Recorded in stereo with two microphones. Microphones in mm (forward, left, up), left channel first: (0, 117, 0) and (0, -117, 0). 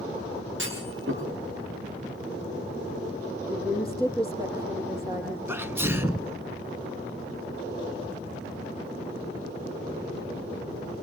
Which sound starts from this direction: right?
A clunk, at 0.6 s.